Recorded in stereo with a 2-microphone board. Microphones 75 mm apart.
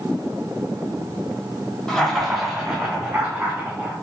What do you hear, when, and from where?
1.9 s laughter: 10° left (ahead or behind), 1.1 m; by 3.9 s 25° right (ahead or behind), 1.5 m